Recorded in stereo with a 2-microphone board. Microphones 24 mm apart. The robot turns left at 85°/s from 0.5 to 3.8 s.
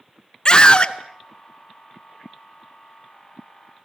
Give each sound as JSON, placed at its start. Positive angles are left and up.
{"t": 0.5, "sound": "a scream", "azimuth_deg": 115, "distance_m": 1.3}